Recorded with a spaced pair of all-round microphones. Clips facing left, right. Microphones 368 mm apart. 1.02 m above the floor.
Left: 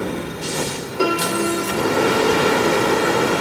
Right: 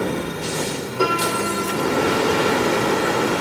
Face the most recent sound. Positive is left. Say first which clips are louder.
# left 3 dB
turn(degrees=35)  # may be behind; listen again after turning